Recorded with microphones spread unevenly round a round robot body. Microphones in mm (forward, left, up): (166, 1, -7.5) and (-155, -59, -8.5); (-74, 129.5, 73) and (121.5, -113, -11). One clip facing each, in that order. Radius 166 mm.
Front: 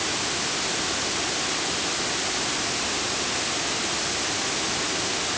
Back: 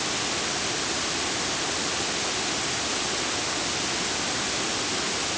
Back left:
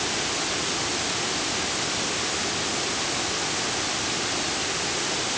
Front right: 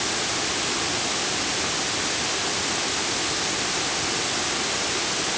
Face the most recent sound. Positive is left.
No sound to turn to.